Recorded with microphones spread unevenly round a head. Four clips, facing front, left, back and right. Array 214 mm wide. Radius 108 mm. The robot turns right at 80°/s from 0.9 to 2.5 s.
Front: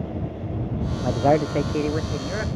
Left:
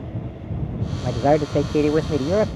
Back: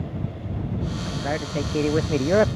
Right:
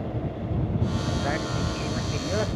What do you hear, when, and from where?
1.0 s a man speaking: 35° left; by 2.5 s 150° left